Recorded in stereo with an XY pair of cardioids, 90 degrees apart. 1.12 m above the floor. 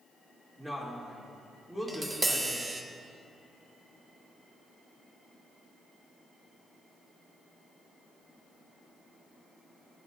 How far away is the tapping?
About 1.1 m.